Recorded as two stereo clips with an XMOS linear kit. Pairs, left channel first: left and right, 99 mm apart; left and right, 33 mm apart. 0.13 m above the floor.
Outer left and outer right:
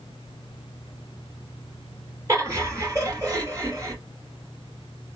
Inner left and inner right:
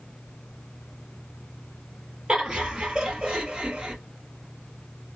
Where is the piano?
No piano in this recording.